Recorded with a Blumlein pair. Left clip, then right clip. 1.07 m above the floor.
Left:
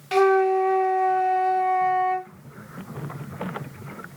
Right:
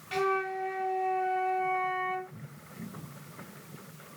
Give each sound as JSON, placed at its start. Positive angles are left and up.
{"t": 0.1, "sound": "a flute", "azimuth_deg": 60, "distance_m": 0.7}